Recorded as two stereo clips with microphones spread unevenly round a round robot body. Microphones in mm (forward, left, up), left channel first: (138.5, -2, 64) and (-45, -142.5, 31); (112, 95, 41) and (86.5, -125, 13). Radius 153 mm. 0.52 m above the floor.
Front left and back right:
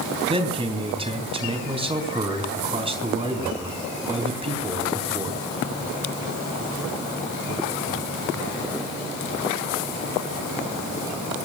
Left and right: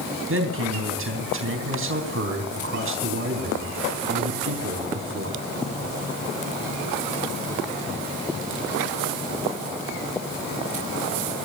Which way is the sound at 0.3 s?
75° right.